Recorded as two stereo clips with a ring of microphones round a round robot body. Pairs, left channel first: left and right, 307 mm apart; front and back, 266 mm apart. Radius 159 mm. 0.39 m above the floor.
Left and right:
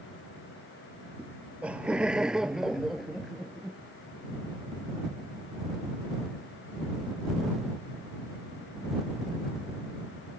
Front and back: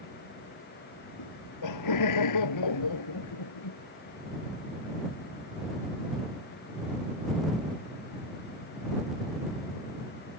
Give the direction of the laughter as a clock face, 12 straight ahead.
12 o'clock.